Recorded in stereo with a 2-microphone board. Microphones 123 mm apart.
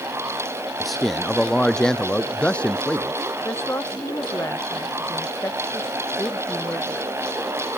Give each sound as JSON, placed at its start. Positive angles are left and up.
{"t": 0.8, "sound": "a man speaking", "side_deg": 0}
{"t": 3.5, "sound": "a woman speaking", "side_deg": 20}